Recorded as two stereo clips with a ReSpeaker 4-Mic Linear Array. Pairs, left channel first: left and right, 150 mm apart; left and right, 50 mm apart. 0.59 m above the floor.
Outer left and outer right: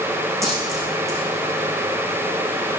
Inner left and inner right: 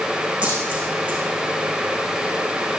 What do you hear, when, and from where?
0.4 s a dropped coin: 20° right (ahead or behind), 8.5 m